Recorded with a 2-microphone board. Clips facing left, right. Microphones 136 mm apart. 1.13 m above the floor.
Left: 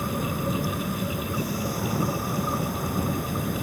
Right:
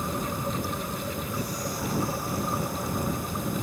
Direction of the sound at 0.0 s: 60° left (ahead or behind).